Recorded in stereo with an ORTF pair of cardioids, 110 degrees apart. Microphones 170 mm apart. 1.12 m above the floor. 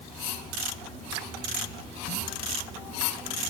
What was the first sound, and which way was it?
Only background noise.